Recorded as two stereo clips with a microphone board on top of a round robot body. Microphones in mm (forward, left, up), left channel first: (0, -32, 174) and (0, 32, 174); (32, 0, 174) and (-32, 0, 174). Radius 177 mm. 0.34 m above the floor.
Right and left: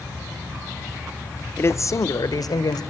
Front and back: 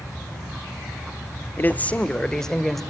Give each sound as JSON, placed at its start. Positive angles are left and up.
{"t": 1.6, "sound": "a man speaking", "azimuth_deg": -50, "distance_m": 1.2}